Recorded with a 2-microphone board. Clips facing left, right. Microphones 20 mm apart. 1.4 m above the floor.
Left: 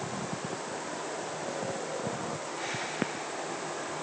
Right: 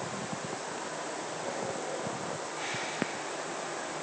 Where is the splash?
No splash in this recording.